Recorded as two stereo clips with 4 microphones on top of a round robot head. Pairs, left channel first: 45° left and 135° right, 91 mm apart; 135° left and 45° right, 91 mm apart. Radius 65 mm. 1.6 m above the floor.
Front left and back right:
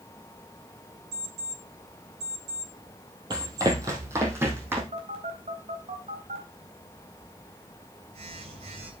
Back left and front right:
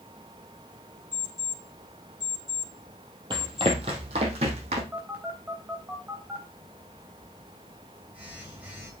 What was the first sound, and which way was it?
An alarm clock, 130° right.